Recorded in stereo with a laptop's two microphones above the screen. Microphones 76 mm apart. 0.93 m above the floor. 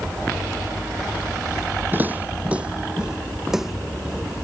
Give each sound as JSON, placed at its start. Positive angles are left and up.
{"t": 1.9, "sound": "footsteps", "side_deg": -25}